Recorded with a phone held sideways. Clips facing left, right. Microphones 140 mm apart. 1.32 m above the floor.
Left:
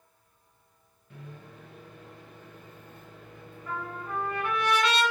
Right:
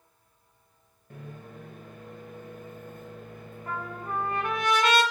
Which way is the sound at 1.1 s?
50° right (ahead or behind).